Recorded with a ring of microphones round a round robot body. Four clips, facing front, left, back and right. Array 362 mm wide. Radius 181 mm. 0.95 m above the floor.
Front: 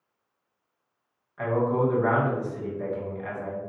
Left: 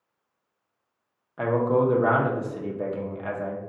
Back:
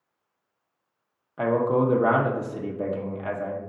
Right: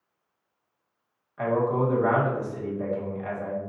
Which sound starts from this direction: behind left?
A man speaking, at 1.4 s.